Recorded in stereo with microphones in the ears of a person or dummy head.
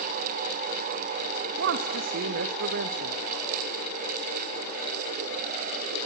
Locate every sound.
1.6 s a woman speaking: 55° right (ahead or behind), 0.9 m